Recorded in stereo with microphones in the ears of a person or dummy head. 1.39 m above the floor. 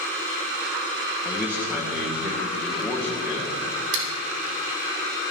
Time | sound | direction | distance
1.2 | a man speaking | 15° right (ahead or behind) | 1.1 m
3.9 | scissors | 65° right (ahead or behind) | 2 m